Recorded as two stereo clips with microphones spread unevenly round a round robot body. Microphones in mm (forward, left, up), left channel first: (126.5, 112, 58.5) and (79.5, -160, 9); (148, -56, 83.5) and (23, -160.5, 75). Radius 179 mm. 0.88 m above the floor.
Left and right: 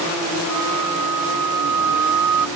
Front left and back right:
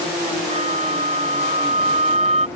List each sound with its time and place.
0.5 s a flute: 90° right